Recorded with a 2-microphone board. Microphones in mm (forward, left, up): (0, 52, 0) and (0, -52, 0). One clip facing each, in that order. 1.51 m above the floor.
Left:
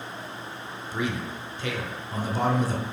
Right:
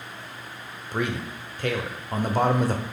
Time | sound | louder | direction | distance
0.9 | a man speaking | right 2 dB | 55° right (ahead or behind) | 0.6 m